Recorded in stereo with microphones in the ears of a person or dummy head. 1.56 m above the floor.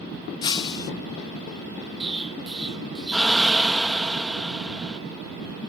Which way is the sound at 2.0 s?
Centre (ahead or behind).